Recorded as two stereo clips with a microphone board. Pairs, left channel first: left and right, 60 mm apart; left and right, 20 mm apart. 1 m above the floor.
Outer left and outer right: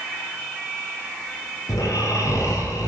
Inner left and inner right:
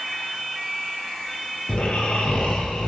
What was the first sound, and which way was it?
Snoring, 80° left.